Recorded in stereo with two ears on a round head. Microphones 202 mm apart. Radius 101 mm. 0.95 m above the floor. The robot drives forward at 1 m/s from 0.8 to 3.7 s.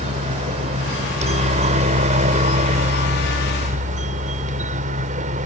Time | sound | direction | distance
0.0 | a helicopter | 30° right (ahead or behind) | ?